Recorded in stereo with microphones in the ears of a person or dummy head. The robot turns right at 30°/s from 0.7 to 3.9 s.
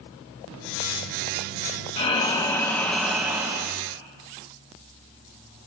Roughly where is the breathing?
Behind left.